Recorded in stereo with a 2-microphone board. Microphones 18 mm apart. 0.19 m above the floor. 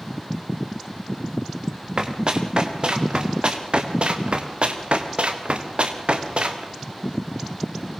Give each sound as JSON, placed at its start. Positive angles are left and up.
{"t": 2.0, "sound": "running footsteps", "side_deg": -50, "distance_m": 6.0}